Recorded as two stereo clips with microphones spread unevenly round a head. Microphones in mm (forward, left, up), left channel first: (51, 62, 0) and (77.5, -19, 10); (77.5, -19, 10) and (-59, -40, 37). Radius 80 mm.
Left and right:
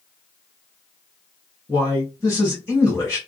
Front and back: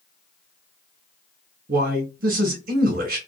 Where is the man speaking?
160° right, 1.1 m.